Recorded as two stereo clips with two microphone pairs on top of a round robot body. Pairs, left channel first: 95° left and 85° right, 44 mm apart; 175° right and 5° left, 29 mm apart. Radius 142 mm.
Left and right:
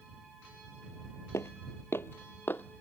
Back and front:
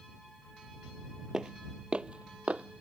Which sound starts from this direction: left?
Footsteps, at 1.3 s.